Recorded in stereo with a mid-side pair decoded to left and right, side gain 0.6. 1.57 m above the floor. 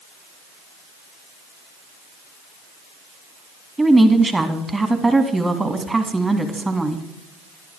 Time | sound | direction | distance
3.8 | a woman speaking | 10° right | 1.9 m